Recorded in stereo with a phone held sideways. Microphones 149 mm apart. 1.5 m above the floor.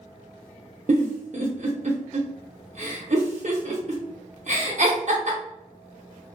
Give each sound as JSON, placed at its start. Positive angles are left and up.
{"t": 0.9, "sound": "a giggle", "side_deg": -60, "distance_m": 0.7}